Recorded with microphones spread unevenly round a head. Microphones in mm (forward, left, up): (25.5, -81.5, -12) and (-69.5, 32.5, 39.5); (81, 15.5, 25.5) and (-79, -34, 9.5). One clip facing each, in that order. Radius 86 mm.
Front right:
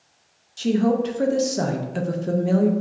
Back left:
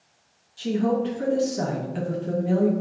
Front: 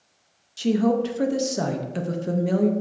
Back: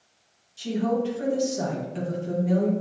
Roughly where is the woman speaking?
Ahead.